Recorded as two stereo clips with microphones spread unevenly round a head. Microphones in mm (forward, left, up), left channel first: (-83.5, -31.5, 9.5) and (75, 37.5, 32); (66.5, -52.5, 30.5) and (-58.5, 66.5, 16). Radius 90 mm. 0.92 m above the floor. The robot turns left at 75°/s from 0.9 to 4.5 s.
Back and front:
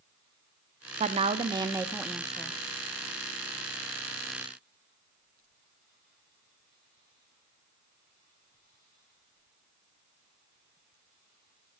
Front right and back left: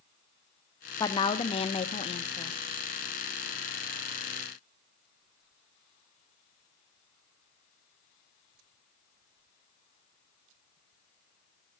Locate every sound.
1.0 s a woman speaking: 15° left, 0.5 m; by 2.6 s 105° right, 0.5 m